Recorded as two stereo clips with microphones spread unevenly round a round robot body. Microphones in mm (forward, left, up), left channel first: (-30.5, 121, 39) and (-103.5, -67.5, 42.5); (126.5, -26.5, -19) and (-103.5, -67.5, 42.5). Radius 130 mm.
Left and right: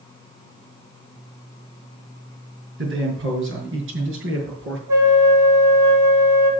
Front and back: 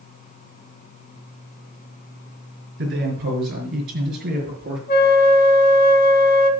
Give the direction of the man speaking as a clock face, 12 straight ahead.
4 o'clock.